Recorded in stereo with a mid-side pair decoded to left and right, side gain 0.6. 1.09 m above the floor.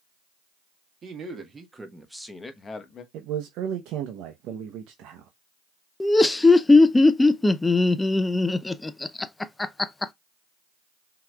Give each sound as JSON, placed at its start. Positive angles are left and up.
{"t": 1.0, "sound": "a man speaking", "azimuth_deg": -35, "distance_m": 1.8}
{"t": 3.1, "sound": "a man speaking", "azimuth_deg": -65, "distance_m": 0.8}
{"t": 6.0, "sound": "laughter", "azimuth_deg": 15, "distance_m": 0.5}